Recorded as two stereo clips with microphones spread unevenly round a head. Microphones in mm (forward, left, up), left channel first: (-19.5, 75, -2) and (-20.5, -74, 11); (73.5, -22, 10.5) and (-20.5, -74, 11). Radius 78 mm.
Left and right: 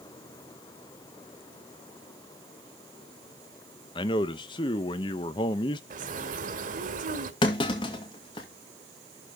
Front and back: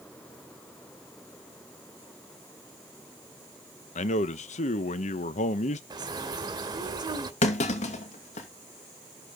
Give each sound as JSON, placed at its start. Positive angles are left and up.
{"t": 4.0, "sound": "a man speaking", "azimuth_deg": 30, "distance_m": 0.9}
{"t": 5.9, "sound": "a bird", "azimuth_deg": -110, "distance_m": 1.4}
{"t": 7.4, "sound": "a clunk", "azimuth_deg": 30, "distance_m": 2.0}